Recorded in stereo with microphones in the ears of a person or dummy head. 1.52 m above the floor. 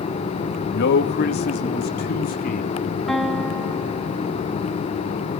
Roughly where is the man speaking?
Left.